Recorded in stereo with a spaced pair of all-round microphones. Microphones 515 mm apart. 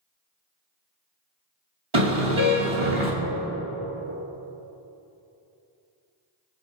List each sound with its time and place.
1.9 s a car horn: 65° right (ahead or behind), 4 m